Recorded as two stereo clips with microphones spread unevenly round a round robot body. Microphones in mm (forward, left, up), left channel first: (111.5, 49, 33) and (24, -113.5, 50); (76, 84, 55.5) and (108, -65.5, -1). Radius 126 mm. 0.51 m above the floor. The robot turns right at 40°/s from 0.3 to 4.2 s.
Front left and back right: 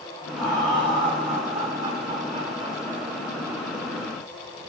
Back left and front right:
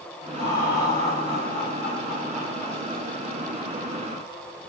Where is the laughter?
Straight behind, 1.1 m; by 3.1 s 75° right, 1.1 m.